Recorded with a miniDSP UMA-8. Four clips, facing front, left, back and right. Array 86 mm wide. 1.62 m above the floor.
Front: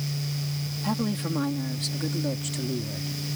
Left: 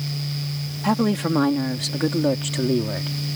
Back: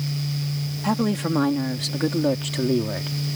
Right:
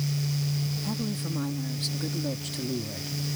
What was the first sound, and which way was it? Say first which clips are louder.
A woman speaking: left 11 dB, back 6 dB; 115° left.